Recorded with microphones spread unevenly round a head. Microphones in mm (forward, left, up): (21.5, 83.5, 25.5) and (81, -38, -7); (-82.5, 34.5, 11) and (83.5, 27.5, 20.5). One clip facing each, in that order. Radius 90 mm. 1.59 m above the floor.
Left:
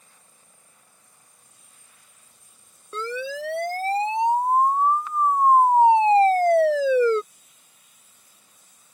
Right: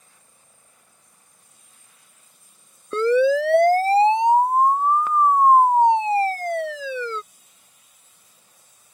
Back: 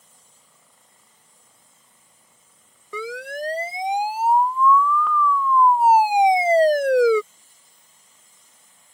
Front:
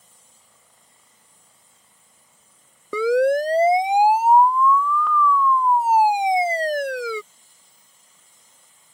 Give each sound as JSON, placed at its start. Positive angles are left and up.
{"t": 2.9, "sound": "a siren", "azimuth_deg": -35}